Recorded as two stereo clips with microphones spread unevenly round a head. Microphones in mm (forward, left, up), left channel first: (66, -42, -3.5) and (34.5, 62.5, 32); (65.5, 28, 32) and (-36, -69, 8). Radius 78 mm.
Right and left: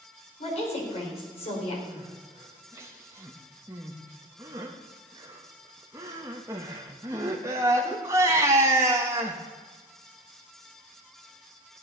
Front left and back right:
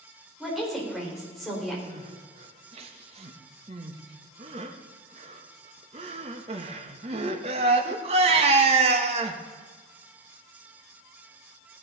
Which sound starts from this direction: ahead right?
A woman speaking, at 0.4 s.